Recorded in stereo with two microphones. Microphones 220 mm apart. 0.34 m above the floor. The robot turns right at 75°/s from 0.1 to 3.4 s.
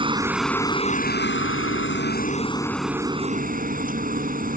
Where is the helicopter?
25° right; by 4.6 s 135° right.